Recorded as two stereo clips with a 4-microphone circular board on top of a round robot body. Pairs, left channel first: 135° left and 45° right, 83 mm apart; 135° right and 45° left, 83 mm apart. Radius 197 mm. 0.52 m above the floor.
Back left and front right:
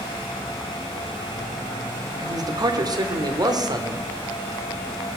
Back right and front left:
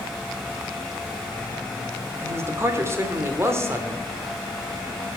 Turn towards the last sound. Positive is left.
turn(degrees=-10)